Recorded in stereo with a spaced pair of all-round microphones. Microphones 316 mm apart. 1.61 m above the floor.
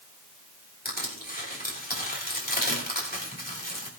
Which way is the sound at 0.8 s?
30° left (ahead or behind).